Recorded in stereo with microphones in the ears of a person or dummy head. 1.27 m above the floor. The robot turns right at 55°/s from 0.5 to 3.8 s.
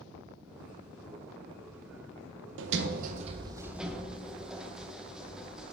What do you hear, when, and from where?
2.6 s a sliding door: 70° right, 0.8 m; by 5.7 s 5° right, 0.8 m